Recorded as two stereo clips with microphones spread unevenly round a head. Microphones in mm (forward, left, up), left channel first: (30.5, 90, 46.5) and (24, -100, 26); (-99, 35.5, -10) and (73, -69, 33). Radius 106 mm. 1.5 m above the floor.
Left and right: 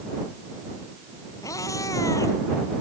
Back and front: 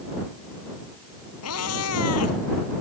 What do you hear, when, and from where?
1.4 s a cat meowing: 160° left